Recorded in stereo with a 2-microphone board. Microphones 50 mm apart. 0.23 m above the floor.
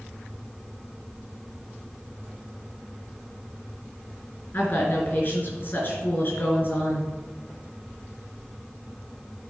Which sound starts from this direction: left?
A woman speaking, at 4.5 s.